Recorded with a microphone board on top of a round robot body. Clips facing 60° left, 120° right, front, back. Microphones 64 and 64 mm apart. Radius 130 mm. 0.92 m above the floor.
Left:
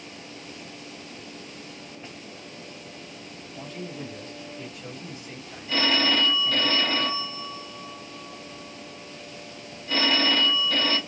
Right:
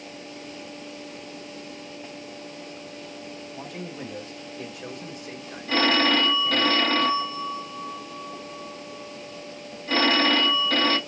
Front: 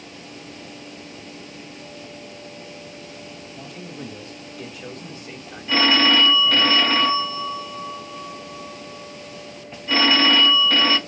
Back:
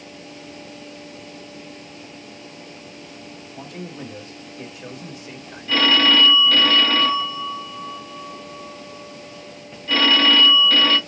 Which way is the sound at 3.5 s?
150° right.